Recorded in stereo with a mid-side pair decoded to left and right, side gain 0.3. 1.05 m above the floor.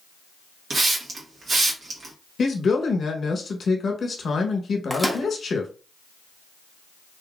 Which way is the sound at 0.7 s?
70° right.